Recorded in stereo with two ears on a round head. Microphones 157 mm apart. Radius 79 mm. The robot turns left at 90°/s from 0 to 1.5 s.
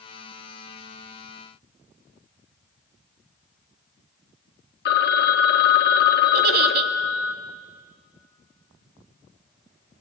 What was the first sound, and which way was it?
A phone ringing, 60° left (ahead or behind).